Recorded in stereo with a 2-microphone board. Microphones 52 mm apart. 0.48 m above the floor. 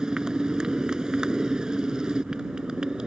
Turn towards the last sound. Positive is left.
turn(degrees=-15)  # may be behind; listen again after turning